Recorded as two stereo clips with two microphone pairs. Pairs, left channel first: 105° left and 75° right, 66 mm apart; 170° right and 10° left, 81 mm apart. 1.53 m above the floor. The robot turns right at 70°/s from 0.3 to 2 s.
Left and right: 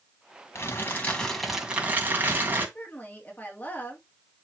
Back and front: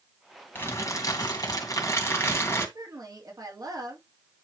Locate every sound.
0.6 s crumpling: 135° left, 2 m; by 2.6 s 125° right, 2 m
2.8 s a woman speaking: 45° left, 3 m